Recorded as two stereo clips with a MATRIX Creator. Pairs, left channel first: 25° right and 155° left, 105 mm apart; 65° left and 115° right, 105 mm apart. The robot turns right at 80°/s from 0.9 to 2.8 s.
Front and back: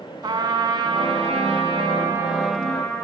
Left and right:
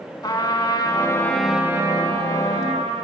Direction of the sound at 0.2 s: 115° left.